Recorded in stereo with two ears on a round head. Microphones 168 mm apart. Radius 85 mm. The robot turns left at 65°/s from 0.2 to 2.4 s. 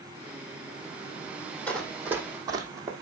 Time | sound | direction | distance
1.7 | running footsteps | 10° left (ahead or behind) | 1.7 m